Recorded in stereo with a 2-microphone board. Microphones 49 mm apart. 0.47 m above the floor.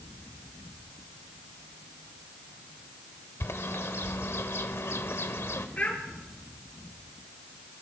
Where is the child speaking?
30° left (ahead or behind), 4 m.